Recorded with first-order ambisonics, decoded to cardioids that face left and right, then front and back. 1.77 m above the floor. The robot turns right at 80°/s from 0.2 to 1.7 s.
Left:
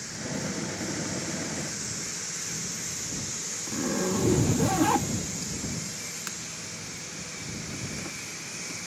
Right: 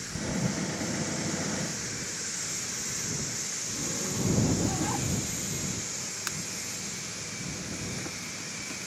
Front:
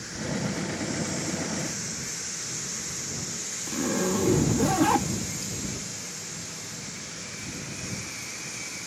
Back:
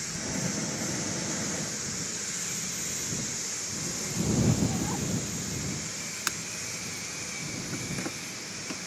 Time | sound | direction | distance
3.7 | a zipper | 35° left | ?
6.3 | breaking glass | 170° right | ?